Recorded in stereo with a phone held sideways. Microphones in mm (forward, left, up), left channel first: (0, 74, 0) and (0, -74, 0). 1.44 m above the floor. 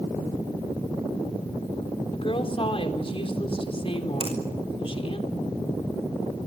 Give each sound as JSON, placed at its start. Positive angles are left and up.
{"t": 2.1, "sound": "a woman speaking", "side_deg": 40, "distance_m": 3.5}
{"t": 4.2, "sound": "a finger snap", "side_deg": -40, "distance_m": 5.5}